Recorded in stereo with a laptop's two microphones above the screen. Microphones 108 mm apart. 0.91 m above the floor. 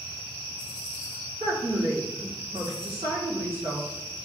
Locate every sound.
1.4 s a woman speaking: 55° right (ahead or behind), 2.5 m